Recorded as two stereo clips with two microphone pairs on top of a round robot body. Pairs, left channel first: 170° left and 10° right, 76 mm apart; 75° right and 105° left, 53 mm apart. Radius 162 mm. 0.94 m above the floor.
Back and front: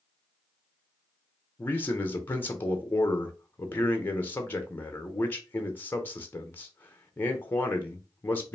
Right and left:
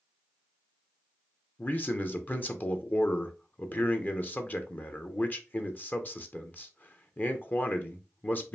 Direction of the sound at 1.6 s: 125° right.